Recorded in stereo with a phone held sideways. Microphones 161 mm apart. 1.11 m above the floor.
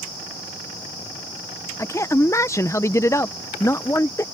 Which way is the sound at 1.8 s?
20° left (ahead or behind).